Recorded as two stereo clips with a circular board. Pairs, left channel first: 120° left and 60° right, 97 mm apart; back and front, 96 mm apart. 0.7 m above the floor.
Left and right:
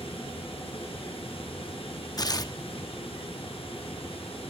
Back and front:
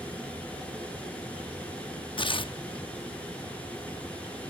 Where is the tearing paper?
160° left, 0.6 m.